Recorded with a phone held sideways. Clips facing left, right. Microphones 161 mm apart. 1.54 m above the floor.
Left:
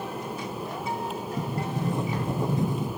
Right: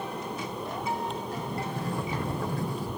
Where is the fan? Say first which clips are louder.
Left 1 dB; 5° left (ahead or behind).